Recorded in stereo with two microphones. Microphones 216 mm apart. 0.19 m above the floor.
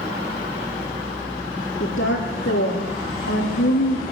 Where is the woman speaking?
60° left (ahead or behind), 9 m.